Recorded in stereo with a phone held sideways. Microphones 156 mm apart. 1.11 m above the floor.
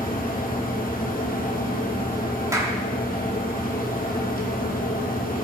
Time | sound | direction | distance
0.0 | a fan | 65° left (ahead or behind) | 1.9 m
2.5 | a clap | 20° right (ahead or behind) | 1.8 m